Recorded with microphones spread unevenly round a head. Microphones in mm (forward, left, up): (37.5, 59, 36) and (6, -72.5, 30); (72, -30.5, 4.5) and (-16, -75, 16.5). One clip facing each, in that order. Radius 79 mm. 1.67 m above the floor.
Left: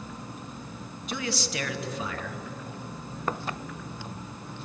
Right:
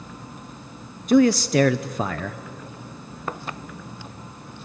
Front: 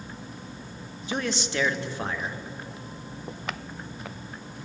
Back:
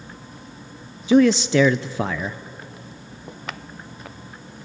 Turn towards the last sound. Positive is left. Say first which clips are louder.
# right 17 dB, back 15 dB
turn(degrees=-155)